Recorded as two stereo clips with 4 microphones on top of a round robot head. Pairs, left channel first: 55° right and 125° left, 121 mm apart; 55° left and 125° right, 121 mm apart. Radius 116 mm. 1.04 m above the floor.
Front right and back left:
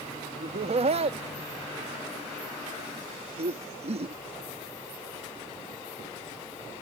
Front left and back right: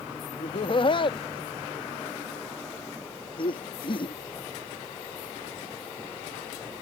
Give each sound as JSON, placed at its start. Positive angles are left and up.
{"t": 0.4, "sound": "laughter", "azimuth_deg": 95}